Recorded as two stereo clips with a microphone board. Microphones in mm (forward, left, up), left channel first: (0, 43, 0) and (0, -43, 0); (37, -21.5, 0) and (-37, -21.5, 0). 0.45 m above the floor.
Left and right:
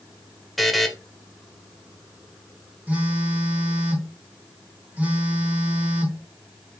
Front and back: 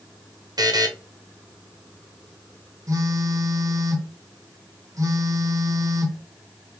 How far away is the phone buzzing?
About 1.1 m.